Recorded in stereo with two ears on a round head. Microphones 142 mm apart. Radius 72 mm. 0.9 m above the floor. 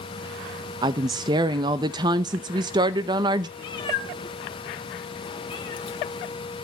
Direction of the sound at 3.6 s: 30° left (ahead or behind).